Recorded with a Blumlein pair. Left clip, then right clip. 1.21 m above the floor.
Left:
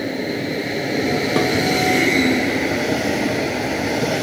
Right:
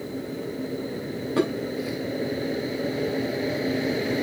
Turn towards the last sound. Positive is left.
turn(degrees=40)